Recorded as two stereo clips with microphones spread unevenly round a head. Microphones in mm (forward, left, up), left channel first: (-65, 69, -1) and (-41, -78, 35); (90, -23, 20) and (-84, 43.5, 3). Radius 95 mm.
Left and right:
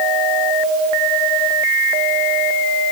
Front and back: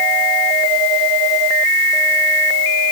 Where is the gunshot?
No gunshot in this recording.